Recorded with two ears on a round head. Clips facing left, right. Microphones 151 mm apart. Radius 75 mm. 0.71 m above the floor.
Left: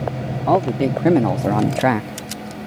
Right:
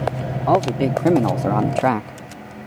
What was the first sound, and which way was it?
A man speaking, 5° left (ahead or behind).